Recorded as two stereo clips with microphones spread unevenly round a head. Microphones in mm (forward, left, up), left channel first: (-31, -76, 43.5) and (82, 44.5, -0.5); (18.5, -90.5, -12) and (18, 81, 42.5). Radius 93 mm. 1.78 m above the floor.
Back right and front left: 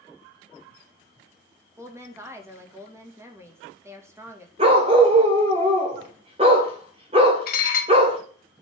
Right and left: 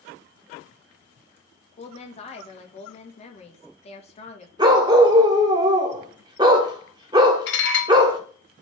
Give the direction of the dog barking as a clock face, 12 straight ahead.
8 o'clock.